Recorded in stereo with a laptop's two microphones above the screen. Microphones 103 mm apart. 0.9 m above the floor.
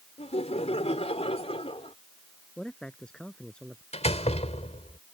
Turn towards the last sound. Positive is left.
turn(degrees=85)